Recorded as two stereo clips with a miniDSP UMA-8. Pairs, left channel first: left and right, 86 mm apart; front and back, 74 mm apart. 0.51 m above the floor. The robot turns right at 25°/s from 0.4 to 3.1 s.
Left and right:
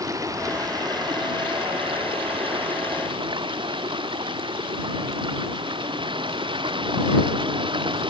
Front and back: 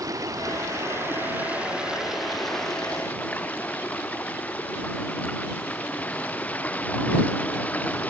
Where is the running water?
140° right; by 8.1 s 70° right.